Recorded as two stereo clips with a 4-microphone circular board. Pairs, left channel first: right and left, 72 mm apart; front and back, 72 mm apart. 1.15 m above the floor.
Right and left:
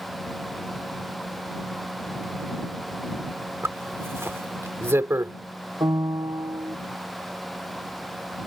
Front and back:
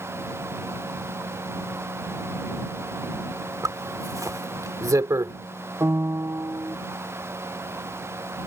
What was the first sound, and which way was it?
A zipper, 140° left.